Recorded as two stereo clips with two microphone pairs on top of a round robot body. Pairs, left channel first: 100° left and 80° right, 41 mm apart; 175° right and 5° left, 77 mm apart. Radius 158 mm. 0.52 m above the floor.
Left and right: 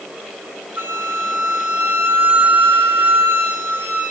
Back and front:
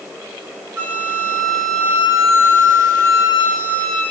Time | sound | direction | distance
0.8 | a flute | 55° right | 3 m